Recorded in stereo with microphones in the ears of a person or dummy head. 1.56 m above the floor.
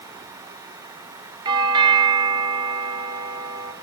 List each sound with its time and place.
1.4 s a doorbell: 25° right (ahead or behind), 0.8 m